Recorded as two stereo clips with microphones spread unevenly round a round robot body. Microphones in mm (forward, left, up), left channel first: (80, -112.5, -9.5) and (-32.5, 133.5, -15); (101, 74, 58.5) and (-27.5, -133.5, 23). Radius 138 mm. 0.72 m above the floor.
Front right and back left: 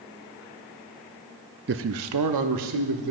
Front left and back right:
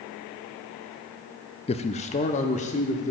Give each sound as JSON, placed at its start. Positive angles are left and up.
{"t": 1.7, "sound": "a man speaking", "azimuth_deg": 120, "distance_m": 0.5}